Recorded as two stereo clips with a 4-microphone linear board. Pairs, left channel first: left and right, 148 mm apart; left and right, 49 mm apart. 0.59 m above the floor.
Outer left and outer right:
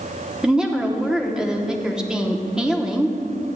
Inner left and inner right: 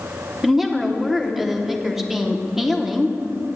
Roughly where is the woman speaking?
Centre.